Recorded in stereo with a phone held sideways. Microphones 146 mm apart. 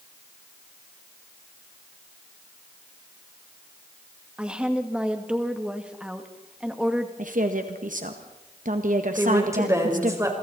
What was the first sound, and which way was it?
A woman speaking, 5° right (ahead or behind).